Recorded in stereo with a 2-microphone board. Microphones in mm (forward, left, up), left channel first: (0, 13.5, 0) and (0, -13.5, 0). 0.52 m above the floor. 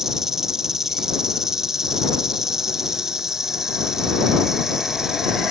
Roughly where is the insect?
Centre.